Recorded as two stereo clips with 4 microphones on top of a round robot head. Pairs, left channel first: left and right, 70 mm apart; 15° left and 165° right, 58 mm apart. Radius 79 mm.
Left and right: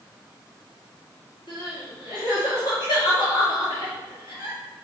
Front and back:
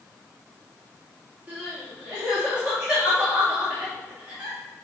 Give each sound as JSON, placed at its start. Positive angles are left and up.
{"t": 1.5, "sound": "crying", "azimuth_deg": 125, "distance_m": 2.5}